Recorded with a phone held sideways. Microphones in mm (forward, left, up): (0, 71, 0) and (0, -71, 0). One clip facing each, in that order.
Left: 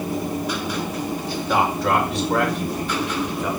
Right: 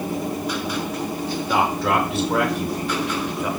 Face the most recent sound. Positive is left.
turn(degrees=-10)  # may be behind; listen again after turning